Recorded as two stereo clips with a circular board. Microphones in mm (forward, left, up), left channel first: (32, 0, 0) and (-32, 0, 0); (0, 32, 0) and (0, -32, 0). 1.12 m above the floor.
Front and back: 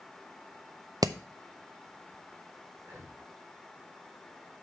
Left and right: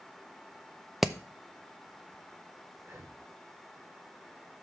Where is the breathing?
140° right, 2.5 m.